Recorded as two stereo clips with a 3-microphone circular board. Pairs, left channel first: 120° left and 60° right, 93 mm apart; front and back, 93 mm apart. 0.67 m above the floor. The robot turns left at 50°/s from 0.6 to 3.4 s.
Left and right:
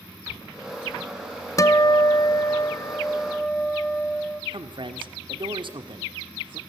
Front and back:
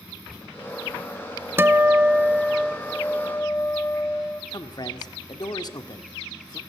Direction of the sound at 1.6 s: 135° left.